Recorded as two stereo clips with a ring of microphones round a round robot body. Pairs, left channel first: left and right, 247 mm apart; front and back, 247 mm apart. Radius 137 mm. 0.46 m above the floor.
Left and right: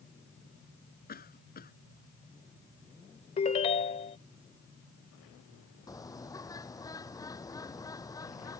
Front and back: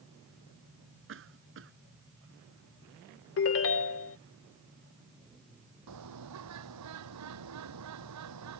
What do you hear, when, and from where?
1.1 s a cough: 145° left
3.4 s a ringtone: 25° left
5.9 s a bird: 165° left